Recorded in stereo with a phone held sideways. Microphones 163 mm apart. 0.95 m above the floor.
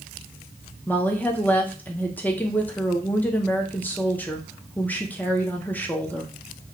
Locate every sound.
0.9 s a woman speaking: 10° left (ahead or behind), 0.5 m